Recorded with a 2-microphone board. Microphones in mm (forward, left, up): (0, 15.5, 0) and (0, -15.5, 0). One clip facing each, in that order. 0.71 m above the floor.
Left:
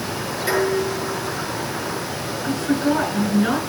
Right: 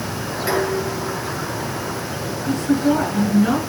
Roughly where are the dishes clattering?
Centre.